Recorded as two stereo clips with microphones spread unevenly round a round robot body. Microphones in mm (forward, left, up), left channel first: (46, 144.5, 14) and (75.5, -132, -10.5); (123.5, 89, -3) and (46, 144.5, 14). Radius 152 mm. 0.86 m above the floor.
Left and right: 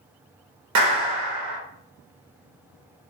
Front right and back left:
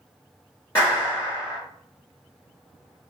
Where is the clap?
100° right, 0.8 m.